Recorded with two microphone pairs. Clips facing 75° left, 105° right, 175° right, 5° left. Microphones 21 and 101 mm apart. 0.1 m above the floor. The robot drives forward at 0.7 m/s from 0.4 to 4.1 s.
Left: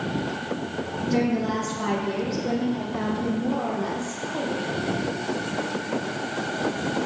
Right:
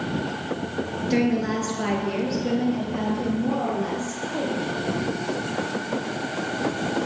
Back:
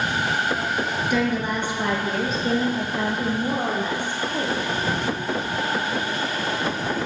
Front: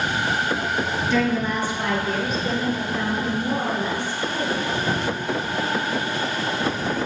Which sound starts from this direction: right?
A woman speaking, at 1.1 s.